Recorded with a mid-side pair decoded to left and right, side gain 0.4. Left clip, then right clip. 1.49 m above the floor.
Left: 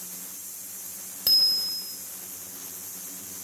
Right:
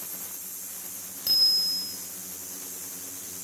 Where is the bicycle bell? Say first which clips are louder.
Left 1 dB; 50° left, 5 m.